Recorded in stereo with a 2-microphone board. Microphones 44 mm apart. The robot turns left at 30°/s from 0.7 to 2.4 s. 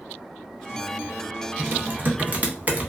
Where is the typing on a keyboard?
45° right (ahead or behind), 0.7 m; by 2.9 s 35° right (ahead or behind), 0.7 m.